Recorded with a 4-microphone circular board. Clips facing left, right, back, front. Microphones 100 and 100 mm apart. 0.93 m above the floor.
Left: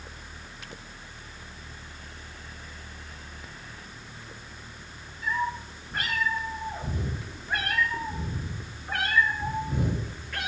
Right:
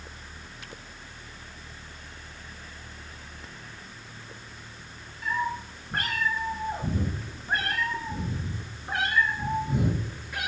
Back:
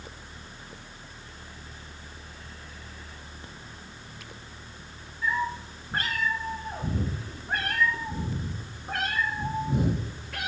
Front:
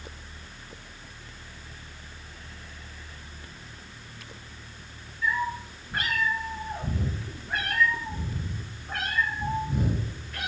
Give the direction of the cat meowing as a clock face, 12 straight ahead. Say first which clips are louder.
Even, even; 4 o'clock.